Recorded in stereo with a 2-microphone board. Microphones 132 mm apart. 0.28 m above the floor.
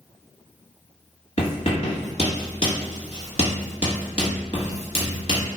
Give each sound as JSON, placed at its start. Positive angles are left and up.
{"t": 1.4, "sound": "writing", "side_deg": 55, "distance_m": 1.4}